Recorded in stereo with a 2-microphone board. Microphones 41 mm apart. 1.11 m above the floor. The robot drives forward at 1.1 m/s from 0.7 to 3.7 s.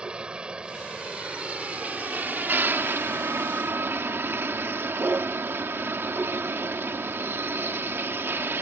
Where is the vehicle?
25° right (ahead or behind); by 8.6 s 70° right (ahead or behind).